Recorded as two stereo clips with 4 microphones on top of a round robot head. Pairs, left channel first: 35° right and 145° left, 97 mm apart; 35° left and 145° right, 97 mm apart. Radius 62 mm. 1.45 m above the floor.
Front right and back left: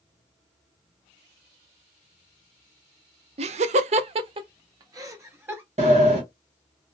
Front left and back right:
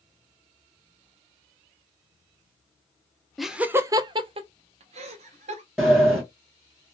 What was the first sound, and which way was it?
Laughter, 125° left.